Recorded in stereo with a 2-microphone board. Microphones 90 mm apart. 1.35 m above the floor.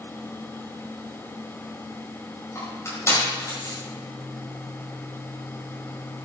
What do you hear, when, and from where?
2.5 s crushing: 30° left (ahead or behind), 6.5 m